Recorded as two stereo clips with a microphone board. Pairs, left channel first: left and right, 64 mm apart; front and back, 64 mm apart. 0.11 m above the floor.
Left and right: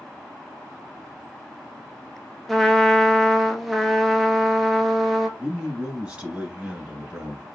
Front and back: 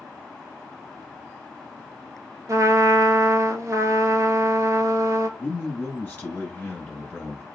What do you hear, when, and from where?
2.5 s a trumpet: straight behind, 0.6 m
5.4 s a man speaking: 30° right, 1.5 m